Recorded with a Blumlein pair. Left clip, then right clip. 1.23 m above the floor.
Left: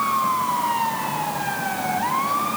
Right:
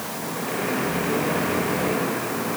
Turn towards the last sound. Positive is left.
No sound to turn to.